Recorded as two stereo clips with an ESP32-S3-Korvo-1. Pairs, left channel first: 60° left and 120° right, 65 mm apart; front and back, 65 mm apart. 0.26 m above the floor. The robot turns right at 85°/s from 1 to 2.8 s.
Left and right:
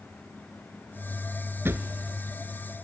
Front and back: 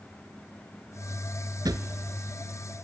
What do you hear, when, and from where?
1.6 s a drawer: 175° right, 0.9 m; by 1.8 s 160° right, 0.9 m